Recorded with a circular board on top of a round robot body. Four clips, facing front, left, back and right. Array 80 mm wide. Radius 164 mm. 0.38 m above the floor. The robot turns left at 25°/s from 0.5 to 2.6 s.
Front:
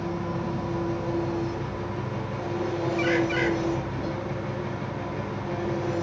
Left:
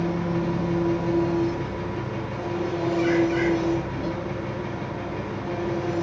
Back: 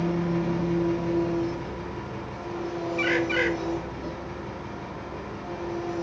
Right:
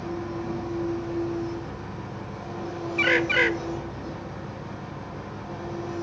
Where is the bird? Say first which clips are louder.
Even, even; 95° right, 0.8 m.